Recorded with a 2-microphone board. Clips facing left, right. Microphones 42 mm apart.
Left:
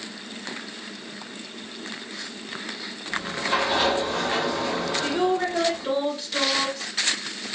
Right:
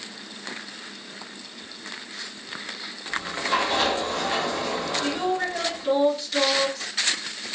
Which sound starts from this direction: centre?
A sliding door, at 3.1 s.